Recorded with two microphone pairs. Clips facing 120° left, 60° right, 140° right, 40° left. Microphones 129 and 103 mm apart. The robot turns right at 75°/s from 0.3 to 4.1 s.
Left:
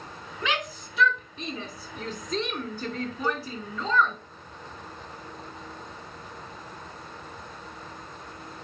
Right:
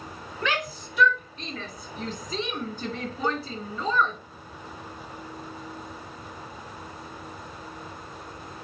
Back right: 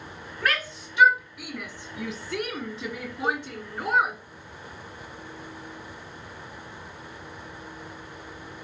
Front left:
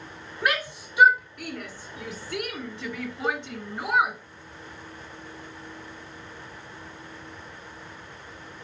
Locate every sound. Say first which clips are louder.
0.4 s a shout: right 1 dB, front left 1 dB; 85° left, 1.7 m; by 4.2 s straight ahead, 1.7 m
3.2 s a cowbell: right 2 dB, back right 1 dB; straight ahead, 1.7 m; by 3.4 s 15° left, 1.7 m